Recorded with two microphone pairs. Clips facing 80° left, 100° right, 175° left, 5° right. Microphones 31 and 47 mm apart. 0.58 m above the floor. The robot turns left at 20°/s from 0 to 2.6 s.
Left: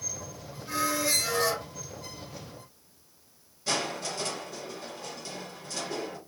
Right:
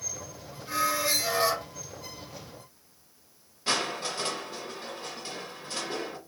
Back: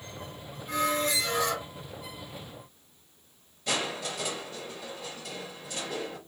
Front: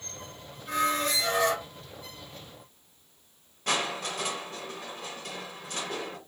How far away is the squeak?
About 1.6 m.